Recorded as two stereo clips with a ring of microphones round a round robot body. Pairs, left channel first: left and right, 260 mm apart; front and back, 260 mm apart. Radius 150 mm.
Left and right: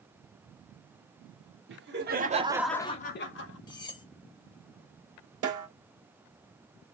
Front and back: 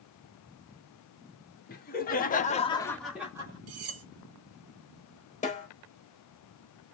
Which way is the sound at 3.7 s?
165° left.